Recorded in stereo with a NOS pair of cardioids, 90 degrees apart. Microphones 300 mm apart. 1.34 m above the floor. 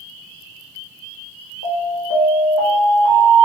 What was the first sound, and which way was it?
An alarm, 65° left.